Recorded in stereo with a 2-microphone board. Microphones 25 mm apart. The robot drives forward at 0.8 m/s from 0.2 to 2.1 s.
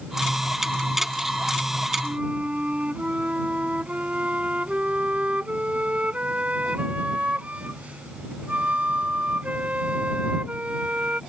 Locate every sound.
2.0 s a flute: 60° right (ahead or behind); by 11.2 s 65° right (ahead or behind)